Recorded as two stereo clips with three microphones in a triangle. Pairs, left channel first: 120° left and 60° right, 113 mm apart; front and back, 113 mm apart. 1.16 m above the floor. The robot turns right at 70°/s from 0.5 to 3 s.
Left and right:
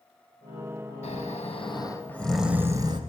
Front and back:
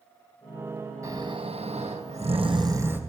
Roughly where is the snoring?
Behind left.